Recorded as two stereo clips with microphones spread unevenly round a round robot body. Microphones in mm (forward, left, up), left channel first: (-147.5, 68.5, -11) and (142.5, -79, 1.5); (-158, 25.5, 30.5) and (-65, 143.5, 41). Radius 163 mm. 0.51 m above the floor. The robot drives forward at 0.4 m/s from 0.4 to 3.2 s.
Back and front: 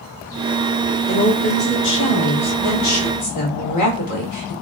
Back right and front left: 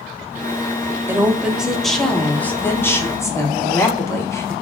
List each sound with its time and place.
1.1 s a woman speaking: 115° left, 0.8 m; by 4.5 s 165° left, 1.2 m